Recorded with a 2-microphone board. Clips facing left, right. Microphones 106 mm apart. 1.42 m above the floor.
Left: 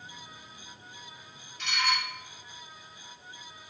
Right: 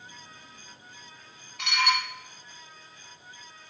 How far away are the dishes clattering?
About 3 m.